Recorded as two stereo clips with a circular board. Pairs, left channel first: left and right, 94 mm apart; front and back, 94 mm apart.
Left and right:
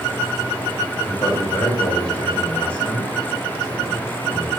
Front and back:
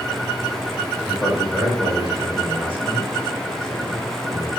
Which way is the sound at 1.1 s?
80° left.